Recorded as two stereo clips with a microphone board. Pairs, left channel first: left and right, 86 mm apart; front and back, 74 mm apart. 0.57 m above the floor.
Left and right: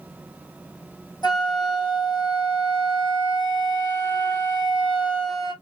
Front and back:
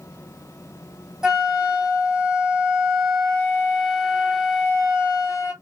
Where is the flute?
100° left, 1.8 m.